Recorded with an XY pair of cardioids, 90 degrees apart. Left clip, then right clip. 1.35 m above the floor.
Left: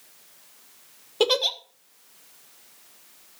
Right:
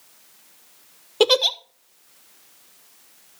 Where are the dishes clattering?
No dishes clattering in this recording.